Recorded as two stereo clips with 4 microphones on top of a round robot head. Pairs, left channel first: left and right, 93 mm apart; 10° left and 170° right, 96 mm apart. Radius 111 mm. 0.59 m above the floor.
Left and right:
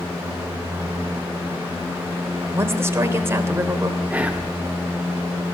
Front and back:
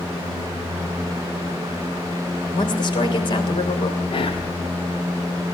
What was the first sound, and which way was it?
A woman speaking, 30° right.